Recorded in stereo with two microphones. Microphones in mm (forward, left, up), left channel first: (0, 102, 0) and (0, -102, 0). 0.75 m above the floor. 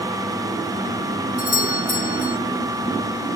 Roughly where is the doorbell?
Right.